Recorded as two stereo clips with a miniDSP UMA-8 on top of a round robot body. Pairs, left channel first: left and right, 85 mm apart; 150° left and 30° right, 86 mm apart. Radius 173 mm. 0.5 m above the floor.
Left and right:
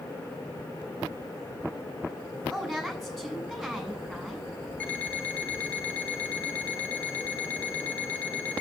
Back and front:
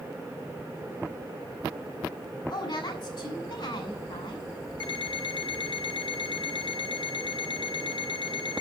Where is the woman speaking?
Straight behind, 7.5 m.